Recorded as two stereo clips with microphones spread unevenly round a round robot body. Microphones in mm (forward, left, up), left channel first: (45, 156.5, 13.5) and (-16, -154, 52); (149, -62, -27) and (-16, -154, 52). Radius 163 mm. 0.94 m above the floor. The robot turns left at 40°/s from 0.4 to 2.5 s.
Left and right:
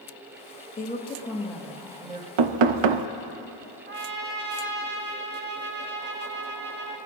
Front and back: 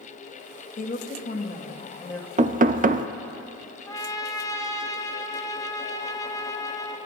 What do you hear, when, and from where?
0.8 s a woman speaking: 25° left, 1.5 m; by 2.3 s 40° right, 1.5 m
2.4 s knocking: 90° right, 0.6 m; by 3.1 s 95° right, 0.6 m
3.9 s a trumpet: 40° right, 1.1 m